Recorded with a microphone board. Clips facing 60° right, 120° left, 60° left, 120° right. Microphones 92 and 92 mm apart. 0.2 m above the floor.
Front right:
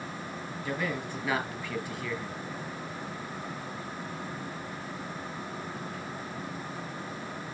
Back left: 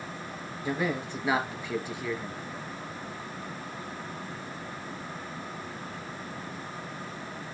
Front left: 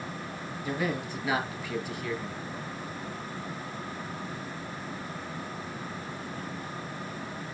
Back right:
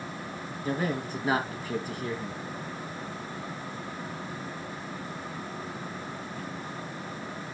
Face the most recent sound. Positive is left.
turn(degrees=-170)